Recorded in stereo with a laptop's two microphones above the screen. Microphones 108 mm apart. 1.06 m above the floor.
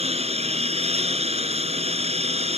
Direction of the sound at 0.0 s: 80° right.